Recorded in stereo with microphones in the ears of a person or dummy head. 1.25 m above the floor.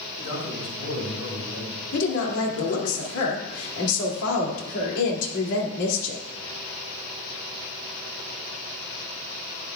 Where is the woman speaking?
75° left (ahead or behind), 2.5 m.